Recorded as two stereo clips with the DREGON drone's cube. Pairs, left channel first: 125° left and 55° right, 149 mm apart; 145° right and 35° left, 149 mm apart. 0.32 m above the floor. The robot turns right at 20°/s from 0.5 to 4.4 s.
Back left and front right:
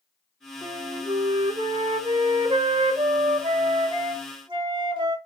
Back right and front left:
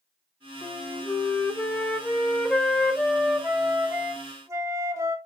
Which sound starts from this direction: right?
A flute, at 0.6 s.